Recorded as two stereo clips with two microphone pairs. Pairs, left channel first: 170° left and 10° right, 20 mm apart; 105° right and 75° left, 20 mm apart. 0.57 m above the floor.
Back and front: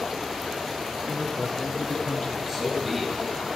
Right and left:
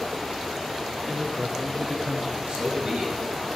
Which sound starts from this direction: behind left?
A man speaking, at 1.1 s.